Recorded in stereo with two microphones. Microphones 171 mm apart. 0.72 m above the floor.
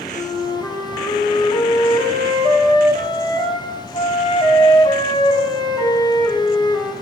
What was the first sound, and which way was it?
A flute, 25° left (ahead or behind).